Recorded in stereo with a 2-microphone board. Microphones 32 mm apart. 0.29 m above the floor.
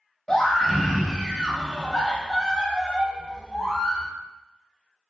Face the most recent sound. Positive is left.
turn(degrees=5)  # may be behind; listen again after turning